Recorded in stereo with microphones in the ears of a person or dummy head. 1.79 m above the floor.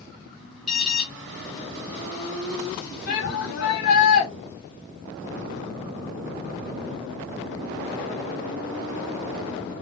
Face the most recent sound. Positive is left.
turn(degrees=55)  # may be behind; listen again after turning